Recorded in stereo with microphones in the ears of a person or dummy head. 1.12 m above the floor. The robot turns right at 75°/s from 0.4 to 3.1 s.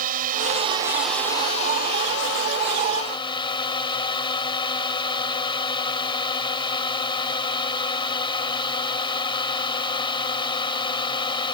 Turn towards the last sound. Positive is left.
turn(degrees=155)